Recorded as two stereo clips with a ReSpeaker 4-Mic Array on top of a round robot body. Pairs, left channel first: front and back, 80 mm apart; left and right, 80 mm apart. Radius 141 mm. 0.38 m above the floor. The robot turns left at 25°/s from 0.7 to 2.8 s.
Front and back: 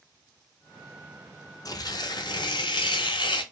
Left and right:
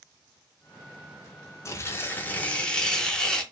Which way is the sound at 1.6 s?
40° left.